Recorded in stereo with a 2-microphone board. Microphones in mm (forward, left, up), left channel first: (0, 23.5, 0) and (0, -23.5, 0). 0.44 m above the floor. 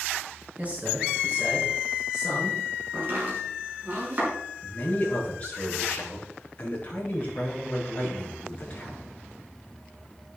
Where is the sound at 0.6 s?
30° right (ahead or behind), 5.5 m; by 2.6 s 5° right (ahead or behind), 6.5 m.